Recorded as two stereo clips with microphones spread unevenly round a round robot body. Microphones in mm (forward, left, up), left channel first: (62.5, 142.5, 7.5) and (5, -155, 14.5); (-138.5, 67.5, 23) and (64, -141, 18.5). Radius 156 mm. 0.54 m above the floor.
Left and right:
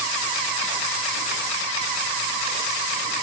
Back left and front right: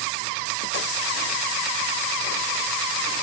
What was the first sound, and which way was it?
Only background noise.